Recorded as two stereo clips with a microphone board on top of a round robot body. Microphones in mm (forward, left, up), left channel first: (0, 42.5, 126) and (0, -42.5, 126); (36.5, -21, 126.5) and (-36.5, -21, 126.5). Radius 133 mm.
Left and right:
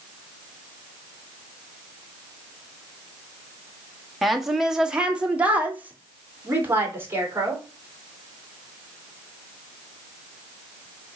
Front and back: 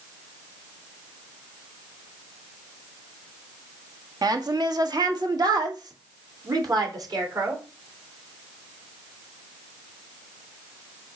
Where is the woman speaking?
Straight behind, 1.8 m; by 7.6 s 150° right, 3 m.